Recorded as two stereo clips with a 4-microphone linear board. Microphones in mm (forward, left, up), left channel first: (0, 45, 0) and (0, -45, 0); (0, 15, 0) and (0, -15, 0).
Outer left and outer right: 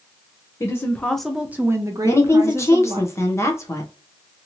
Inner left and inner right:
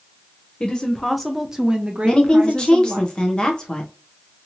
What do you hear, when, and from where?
0.6 s a woman speaking: 35° left (ahead or behind), 0.6 m; by 3.0 s 60° right (ahead or behind), 1.0 m
2.0 s a woman speaking: 30° left (ahead or behind), 0.7 m